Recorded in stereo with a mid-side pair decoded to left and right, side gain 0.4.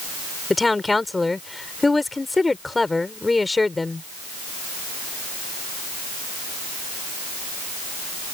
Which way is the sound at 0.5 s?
20° left.